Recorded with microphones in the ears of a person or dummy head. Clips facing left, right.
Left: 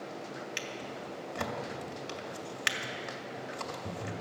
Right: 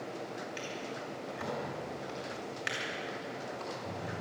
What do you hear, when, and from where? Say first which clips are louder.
0.6 s a drawer: right 1 dB; 65° left (ahead or behind), 2 m